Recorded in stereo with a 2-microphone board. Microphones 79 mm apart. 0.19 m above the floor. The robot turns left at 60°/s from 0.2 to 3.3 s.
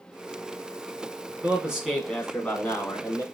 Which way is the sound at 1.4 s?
150° right.